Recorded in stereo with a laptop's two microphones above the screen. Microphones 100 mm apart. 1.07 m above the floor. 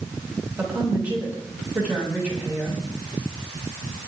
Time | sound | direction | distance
0.6 | a woman speaking | 15° right (ahead or behind) | 8 m